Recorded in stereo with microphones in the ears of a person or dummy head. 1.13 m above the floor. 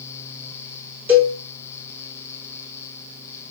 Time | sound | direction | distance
1.1 | a cowbell | 5° right (ahead or behind) | 1.4 m